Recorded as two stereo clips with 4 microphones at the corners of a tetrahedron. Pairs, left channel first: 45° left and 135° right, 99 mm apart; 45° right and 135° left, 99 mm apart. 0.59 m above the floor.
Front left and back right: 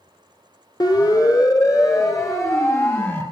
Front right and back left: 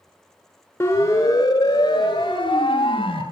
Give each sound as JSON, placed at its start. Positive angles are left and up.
{"t": 0.8, "sound": "a siren", "azimuth_deg": 10, "distance_m": 3.0}